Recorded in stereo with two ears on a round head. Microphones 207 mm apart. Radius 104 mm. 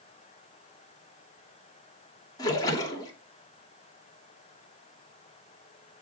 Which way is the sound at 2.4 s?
15° left (ahead or behind).